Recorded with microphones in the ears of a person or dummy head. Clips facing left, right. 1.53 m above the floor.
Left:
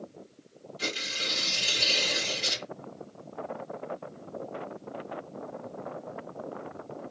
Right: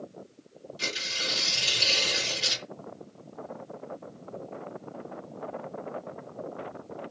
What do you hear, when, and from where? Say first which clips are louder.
0.8 s tearing paper: left 2 dB; 35° right (ahead or behind), 2.5 m